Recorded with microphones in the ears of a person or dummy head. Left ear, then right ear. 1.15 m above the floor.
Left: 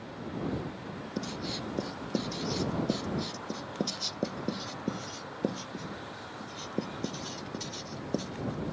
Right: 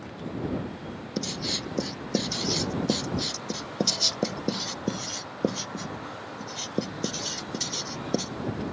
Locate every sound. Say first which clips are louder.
1.2 s writing: right 7 dB; 20° right (ahead or behind)